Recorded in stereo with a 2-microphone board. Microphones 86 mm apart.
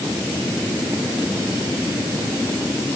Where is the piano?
I don't hear a piano.